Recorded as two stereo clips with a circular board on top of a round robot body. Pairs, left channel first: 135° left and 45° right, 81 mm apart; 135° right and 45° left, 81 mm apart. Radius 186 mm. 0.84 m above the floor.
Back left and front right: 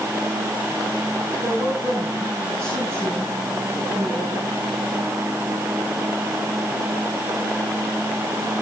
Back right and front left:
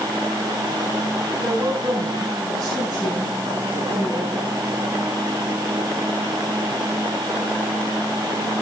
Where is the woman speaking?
10° left, 7 m.